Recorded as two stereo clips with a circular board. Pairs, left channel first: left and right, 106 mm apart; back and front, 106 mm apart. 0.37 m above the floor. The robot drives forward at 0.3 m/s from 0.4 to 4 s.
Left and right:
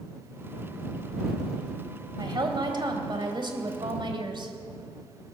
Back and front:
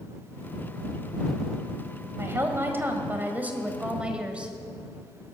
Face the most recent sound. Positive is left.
turn(degrees=-75)